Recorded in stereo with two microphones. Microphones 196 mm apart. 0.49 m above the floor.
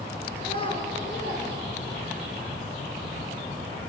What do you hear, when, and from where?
0.4 s a child speaking: 25° left (ahead or behind), 4.5 m